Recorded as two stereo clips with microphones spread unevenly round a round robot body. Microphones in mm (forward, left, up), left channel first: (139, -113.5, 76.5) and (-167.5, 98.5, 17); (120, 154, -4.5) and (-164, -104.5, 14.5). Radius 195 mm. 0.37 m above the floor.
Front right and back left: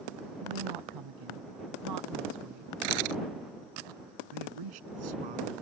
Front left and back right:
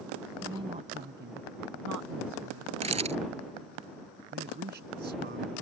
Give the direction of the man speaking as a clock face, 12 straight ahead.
7 o'clock.